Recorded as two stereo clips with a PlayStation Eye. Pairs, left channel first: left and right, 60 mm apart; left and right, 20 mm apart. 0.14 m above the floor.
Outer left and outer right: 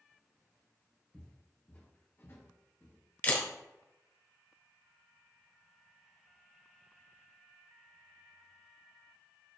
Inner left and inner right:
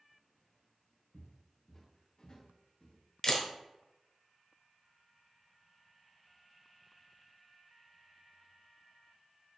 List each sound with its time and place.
1.1 s footsteps: 10° left (ahead or behind), 1.5 m; by 3.0 s 55° left (ahead or behind), 1.9 m
3.2 s a camera shutter: 35° left (ahead or behind), 1.1 m